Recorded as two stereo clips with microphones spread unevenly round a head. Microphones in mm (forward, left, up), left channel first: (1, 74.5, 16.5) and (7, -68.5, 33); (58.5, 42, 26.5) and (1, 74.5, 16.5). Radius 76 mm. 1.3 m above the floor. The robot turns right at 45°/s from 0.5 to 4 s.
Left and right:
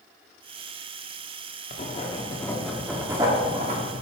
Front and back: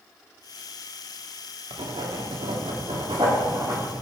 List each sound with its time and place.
1.7 s writing: 140° left, 1.4 m; by 4.0 s 120° right, 1.4 m